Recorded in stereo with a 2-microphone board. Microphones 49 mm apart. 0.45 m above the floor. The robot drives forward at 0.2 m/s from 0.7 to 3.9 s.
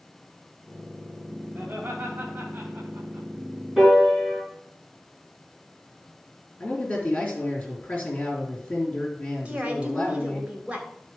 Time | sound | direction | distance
1.6 | laughter | 40° right (ahead or behind) | 2 m
3.8 | a piano | 10° right (ahead or behind) | 4.5 m
6.6 | a man speaking | 30° left (ahead or behind) | 4 m
9.4 | a woman speaking | 25° right (ahead or behind) | 2.5 m